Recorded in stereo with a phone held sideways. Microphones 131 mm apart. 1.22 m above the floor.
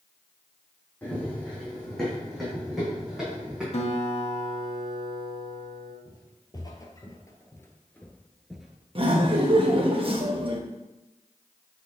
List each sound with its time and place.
1.0 s running footsteps: 15° left (ahead or behind), 4.5 m; by 3.6 s 10° right (ahead or behind), 5.5 m
3.7 s a guitar: 50° left (ahead or behind), 1.3 m
6.0 s footsteps: 30° left (ahead or behind), 2 m; by 9.7 s 15° right (ahead or behind), 1.6 m
8.9 s laughter: 40° right (ahead or behind), 1.2 m